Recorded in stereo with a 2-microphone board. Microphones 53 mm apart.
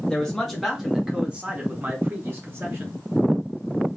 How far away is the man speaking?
About 1.4 m.